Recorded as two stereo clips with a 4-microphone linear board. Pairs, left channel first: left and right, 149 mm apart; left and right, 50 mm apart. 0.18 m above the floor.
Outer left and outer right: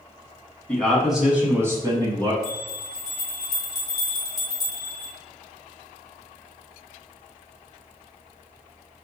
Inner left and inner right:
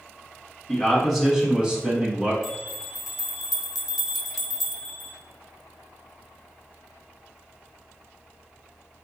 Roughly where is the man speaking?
Centre.